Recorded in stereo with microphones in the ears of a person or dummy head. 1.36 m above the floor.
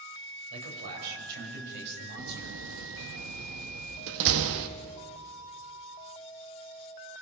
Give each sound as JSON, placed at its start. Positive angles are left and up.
{"t": 0.5, "sound": "a man speaking", "side_deg": -60, "distance_m": 7.0}
{"t": 2.2, "sound": "a door slam", "side_deg": -70, "distance_m": 1.2}